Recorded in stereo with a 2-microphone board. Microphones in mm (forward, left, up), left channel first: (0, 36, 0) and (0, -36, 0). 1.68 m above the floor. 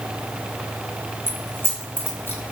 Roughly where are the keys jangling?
Left.